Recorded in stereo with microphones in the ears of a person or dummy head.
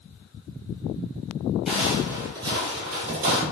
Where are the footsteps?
Centre (ahead or behind), 2.0 m; by 3.4 s 45° right (ahead or behind), 2 m.